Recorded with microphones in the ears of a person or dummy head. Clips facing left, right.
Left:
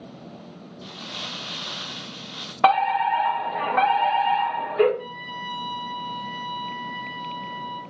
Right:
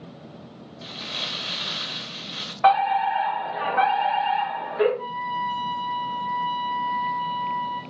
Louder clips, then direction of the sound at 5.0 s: Right 5 dB; 20° left (ahead or behind).